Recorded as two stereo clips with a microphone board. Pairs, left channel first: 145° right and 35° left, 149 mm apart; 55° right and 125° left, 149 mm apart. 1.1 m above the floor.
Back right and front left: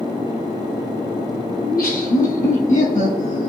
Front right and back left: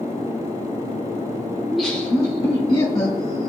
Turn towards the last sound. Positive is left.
turn(degrees=-100)